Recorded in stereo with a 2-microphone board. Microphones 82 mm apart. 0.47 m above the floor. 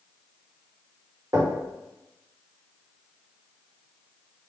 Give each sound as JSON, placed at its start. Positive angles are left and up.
{"t": 1.3, "sound": "knocking", "side_deg": -40, "distance_m": 1.3}